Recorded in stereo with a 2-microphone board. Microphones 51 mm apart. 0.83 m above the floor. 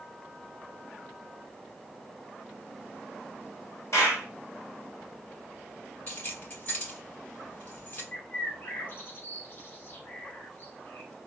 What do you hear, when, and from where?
3.9 s a clap: 70° left (ahead or behind), 1.4 m
6.1 s keys jangling: 45° left (ahead or behind), 2.5 m
8.1 s a bird: 40° left (ahead or behind), 0.7 m